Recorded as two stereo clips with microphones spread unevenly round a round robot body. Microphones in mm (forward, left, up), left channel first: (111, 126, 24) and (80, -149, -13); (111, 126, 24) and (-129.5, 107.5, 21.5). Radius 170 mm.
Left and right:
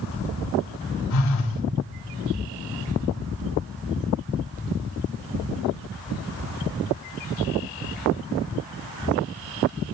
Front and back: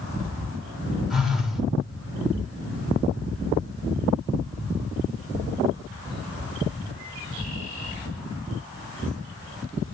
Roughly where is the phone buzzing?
Left.